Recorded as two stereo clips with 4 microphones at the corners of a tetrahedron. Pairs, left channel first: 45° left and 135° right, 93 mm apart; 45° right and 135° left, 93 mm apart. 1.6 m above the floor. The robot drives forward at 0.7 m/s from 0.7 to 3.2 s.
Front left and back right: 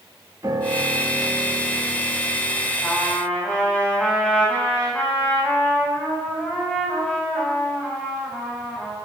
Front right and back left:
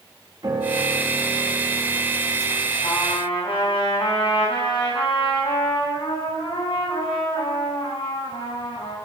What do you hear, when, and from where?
0.4 s a piano: 175° left, 2.5 m
2.8 s a trumpet: 35° right, 7 m